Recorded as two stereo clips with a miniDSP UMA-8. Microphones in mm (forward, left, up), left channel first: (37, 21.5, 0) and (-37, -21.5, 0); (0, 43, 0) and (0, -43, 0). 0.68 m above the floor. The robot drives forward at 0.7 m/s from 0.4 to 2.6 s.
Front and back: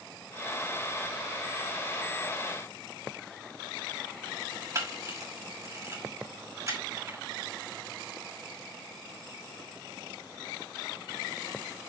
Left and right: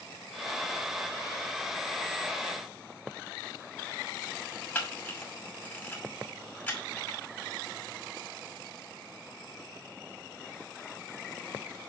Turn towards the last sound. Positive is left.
turn(degrees=160)